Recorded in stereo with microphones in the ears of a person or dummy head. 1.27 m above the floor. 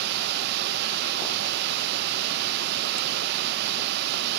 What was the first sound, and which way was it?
Running water, 65° right (ahead or behind).